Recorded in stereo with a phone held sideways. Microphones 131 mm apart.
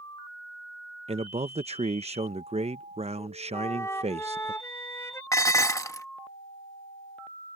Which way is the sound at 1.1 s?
60° right (ahead or behind).